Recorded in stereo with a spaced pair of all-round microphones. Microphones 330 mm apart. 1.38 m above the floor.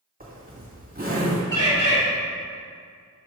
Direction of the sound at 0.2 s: 25° right (ahead or behind).